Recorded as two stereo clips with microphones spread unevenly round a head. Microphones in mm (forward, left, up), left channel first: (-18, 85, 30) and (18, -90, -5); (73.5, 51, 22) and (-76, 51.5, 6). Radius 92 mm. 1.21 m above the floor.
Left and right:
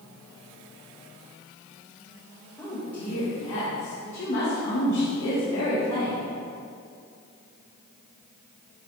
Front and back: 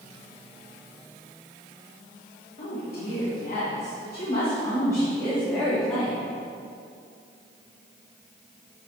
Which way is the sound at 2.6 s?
25° left.